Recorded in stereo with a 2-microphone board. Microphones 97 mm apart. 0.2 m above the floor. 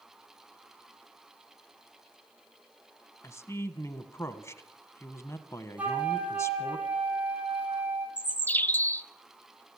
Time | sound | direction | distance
3.2 | a man speaking | 30° left (ahead or behind) | 1.3 m
5.8 | a flute | 15° right (ahead or behind) | 3 m
8.2 | a bird | 20° left (ahead or behind) | 0.5 m